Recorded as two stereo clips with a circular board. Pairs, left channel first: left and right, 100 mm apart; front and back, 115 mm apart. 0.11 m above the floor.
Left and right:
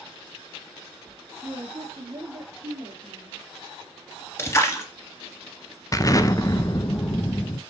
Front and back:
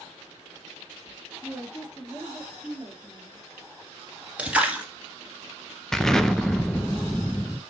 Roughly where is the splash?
Behind left.